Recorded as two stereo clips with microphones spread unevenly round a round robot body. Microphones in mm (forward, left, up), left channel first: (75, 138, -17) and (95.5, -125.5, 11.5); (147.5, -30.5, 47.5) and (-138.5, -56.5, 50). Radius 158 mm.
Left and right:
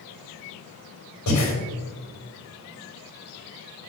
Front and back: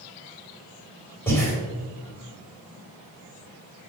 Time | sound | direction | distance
1.3 | breathing | 85° left | 2 m